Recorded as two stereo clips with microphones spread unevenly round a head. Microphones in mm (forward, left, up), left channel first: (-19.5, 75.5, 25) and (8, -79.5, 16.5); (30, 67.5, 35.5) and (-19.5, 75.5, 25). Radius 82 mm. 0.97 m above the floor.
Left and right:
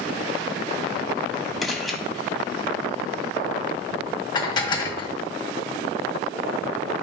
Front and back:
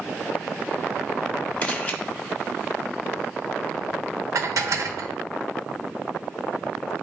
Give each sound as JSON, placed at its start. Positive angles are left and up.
{"t": 1.6, "sound": "a camera shutter", "azimuth_deg": 15, "distance_m": 1.1}
{"t": 4.3, "sound": "dishes clattering", "azimuth_deg": 165, "distance_m": 1.1}